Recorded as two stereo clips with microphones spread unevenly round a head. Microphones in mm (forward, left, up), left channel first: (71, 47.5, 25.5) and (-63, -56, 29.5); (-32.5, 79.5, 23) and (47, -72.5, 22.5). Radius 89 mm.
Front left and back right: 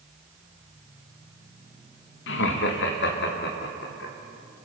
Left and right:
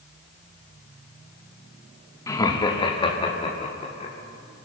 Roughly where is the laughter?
Ahead left.